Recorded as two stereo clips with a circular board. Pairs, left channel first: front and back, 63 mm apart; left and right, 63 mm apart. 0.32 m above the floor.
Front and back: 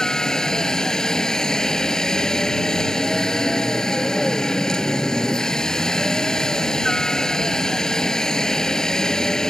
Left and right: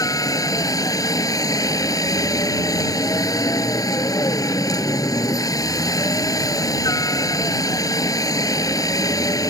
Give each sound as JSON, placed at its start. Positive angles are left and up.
{"t": 0.0, "sound": "a helicopter", "azimuth_deg": 80}